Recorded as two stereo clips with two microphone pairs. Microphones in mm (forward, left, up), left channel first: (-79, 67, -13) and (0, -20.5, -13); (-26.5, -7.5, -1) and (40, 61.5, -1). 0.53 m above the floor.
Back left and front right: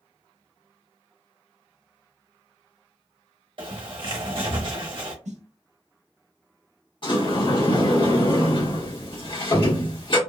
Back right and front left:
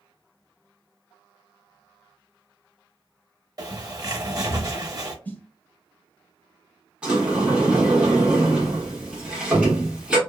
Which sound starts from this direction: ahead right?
A snare drum, at 5.2 s.